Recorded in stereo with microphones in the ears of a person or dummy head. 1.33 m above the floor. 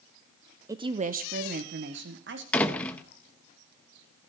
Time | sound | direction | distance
0.7 | a woman speaking | 15° right (ahead or behind) | 0.6 m
2.5 | a door slam | 5° left (ahead or behind) | 1.0 m